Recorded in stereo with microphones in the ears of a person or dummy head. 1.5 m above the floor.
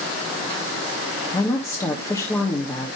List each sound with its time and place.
1.3 s a woman speaking: 10° left (ahead or behind), 1.1 m